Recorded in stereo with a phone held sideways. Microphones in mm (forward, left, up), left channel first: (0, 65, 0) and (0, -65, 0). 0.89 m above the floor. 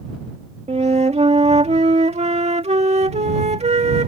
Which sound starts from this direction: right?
A flute, at 0.7 s.